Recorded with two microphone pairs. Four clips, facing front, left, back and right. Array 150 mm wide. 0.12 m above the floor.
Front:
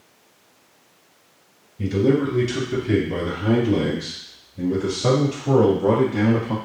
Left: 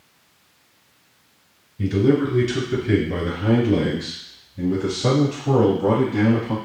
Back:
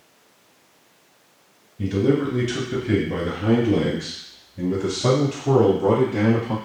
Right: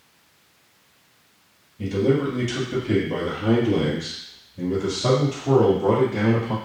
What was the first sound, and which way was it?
A man speaking, 130° left.